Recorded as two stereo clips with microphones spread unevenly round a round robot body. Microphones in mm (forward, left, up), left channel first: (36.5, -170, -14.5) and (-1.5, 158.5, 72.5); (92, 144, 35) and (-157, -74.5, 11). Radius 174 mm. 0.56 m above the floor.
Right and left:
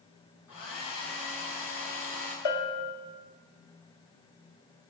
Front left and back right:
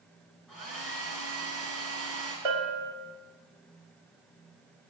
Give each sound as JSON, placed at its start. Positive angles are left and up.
{"t": 0.5, "sound": "a hair dryer", "azimuth_deg": -50, "distance_m": 6.0}
{"t": 2.5, "sound": "a bell", "azimuth_deg": -125, "distance_m": 1.6}